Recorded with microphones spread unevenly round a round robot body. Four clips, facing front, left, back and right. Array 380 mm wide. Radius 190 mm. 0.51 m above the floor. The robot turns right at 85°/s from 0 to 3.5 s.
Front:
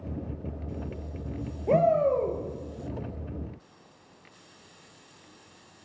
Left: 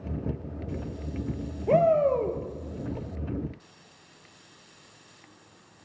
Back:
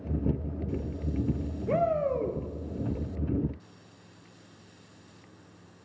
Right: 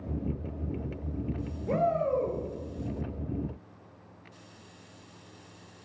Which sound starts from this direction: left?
A shout, at 1.7 s.